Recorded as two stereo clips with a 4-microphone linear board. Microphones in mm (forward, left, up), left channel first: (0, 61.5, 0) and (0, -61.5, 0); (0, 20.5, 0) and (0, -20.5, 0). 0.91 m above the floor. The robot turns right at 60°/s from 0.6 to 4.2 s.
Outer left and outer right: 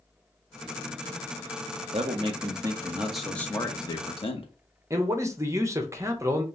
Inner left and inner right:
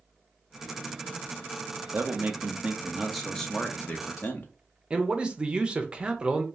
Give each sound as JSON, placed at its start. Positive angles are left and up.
{"t": 1.9, "sound": "a man speaking", "azimuth_deg": -75, "distance_m": 1.0}
{"t": 4.9, "sound": "a man speaking", "side_deg": -25, "distance_m": 0.7}